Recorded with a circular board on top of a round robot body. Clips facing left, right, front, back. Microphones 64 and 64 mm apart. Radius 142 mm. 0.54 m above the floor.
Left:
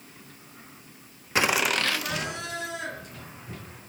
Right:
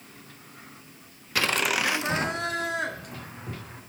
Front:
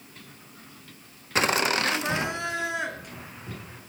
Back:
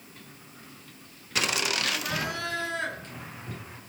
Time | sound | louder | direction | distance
1.4 | laughter | left 1 dB, front 5 dB | 35° left | 1.1 m